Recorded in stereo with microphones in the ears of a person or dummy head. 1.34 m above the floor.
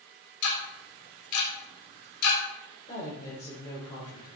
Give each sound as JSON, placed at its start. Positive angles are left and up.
{"t": 0.4, "sound": "ticking", "side_deg": 90, "distance_m": 3.5}
{"t": 2.9, "sound": "a woman speaking", "side_deg": 30, "distance_m": 4.5}